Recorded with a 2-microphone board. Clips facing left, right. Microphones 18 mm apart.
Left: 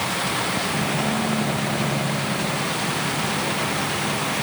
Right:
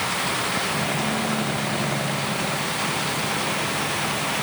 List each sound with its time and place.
Only background noise.